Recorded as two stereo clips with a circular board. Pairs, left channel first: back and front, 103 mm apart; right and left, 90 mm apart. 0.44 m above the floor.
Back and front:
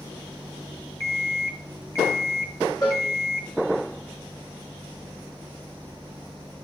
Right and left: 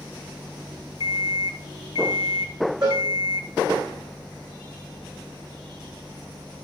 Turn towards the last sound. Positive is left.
turn(degrees=130)